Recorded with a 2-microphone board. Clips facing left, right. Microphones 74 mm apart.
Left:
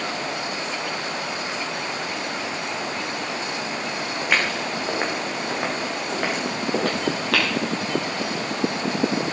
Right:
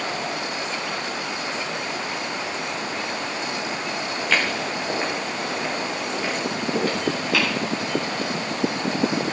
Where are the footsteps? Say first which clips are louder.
Even; 15° left (ahead or behind), 4.5 m; by 7.5 s 70° left (ahead or behind), 6 m.